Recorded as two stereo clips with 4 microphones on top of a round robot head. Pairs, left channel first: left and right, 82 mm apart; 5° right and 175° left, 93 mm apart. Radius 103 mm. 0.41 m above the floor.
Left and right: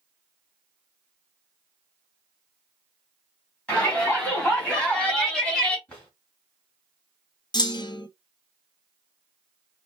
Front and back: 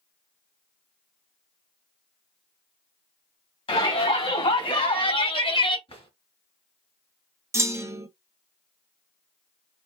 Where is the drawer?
10° left, 2.5 m.